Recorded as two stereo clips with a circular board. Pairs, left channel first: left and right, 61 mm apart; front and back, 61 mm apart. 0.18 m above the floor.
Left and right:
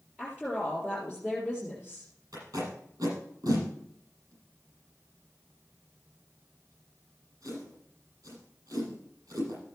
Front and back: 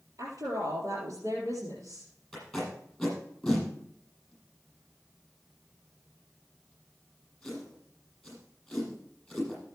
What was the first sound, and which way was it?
A woman speaking, 165° right.